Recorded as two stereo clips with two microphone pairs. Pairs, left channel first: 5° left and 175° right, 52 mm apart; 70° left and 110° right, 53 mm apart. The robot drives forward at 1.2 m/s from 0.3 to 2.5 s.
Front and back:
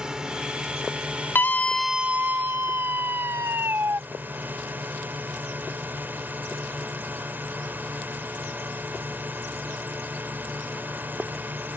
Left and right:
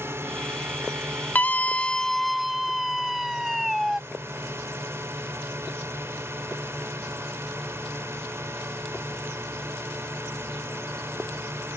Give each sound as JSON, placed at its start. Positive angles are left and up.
{"t": 0.0, "sound": "a drone", "azimuth_deg": -105}
{"t": 1.4, "sound": "a scream", "azimuth_deg": 25}